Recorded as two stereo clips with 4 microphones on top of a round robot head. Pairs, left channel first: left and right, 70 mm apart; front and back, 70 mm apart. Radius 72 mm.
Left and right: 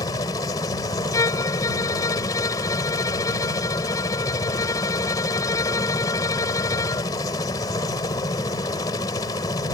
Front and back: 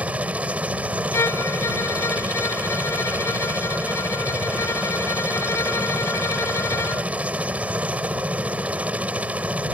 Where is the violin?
50° left.